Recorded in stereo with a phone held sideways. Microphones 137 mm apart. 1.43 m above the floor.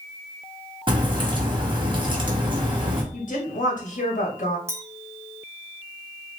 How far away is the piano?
No piano in this recording.